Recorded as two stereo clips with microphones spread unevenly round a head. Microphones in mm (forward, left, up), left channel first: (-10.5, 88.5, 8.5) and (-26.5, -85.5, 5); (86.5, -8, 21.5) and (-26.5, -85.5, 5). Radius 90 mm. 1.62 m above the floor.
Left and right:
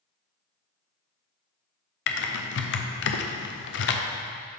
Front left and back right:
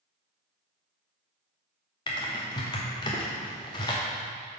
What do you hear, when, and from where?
2.1 s typing on a keyboard: 95° left, 0.5 m